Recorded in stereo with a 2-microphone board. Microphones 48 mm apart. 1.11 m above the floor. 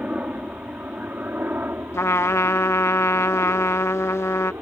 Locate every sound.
0.0 s a helicopter: 30° right (ahead or behind); by 4.6 s 60° right (ahead or behind)
1.9 s a trumpet: 75° left (ahead or behind)